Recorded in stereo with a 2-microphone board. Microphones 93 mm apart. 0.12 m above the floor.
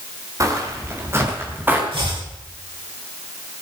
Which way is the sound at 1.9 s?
80° right.